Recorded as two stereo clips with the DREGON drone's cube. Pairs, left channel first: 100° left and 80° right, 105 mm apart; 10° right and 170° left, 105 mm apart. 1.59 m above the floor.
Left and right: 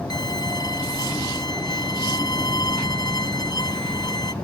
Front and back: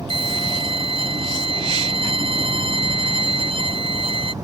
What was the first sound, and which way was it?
A violin, 145° left.